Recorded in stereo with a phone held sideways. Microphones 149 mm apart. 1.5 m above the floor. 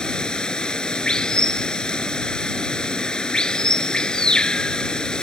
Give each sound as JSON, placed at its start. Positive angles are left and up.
{"t": 0.0, "sound": "running water", "side_deg": 5}